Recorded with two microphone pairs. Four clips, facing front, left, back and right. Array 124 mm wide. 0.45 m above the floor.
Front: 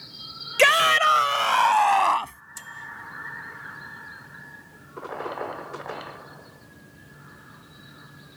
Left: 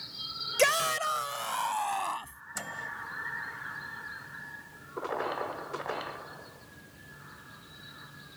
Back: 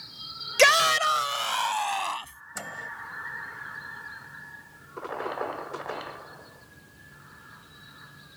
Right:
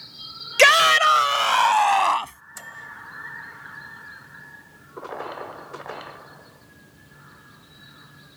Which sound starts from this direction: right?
A shout, at 0.6 s.